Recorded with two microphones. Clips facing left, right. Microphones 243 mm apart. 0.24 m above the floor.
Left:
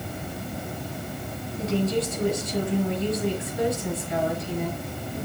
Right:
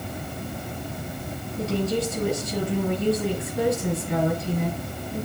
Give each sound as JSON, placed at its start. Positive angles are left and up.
{"t": 1.6, "sound": "a woman speaking", "side_deg": -50, "distance_m": 5.5}